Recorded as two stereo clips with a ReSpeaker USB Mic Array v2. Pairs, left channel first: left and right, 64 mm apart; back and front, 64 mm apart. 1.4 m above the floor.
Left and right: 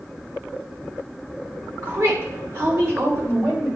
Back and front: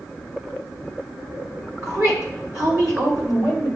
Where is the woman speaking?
35° right, 3 m.